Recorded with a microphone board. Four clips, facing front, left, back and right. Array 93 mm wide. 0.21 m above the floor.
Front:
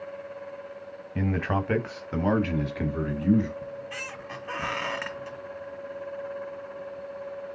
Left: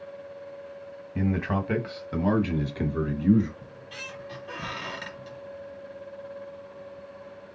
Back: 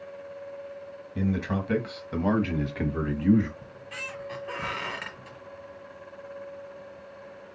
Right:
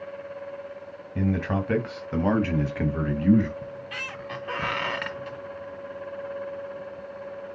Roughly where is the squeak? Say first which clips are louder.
Right 6 dB, front 4 dB; ahead right.